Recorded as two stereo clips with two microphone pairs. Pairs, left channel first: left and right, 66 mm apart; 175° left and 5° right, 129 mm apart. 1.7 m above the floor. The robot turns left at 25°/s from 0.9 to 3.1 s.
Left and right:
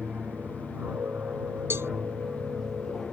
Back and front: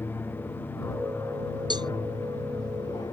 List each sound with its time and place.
0.0 s an aircraft: 135° right; by 3.1 s 170° left
1.7 s a cowbell: 50° right; by 1.9 s 55° right